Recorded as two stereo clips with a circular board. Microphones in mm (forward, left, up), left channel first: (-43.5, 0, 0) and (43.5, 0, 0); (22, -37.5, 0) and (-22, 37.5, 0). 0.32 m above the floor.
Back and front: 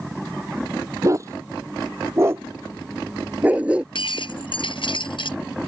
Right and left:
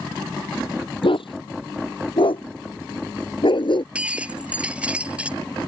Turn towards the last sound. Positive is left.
turn(degrees=-165)